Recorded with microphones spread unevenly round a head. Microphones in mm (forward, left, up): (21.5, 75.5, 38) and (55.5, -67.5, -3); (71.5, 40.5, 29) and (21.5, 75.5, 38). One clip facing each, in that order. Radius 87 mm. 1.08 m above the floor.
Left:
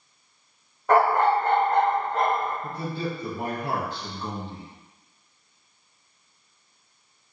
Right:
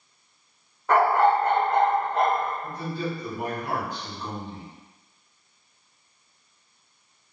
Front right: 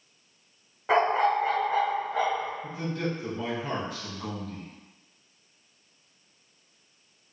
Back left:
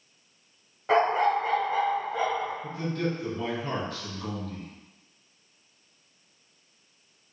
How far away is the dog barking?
About 1.0 m.